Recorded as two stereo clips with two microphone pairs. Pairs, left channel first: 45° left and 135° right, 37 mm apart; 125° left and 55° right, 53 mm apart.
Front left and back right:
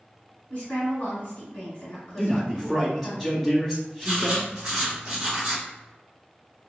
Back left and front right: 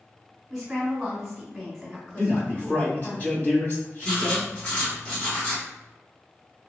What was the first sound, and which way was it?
A woman speaking, 30° left.